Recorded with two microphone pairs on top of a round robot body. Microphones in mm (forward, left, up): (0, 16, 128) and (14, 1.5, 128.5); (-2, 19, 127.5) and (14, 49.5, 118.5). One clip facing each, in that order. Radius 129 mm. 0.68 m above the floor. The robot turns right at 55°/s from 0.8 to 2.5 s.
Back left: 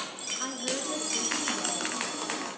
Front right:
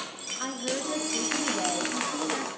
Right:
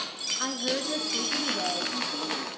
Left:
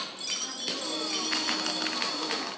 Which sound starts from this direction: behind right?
A woman speaking, at 0.4 s.